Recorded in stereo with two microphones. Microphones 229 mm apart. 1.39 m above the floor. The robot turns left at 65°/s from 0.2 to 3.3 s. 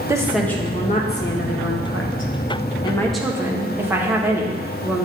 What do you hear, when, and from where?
0.1 s a woman speaking: 170° right, 1.2 m; by 5.1 s 10° right, 1.2 m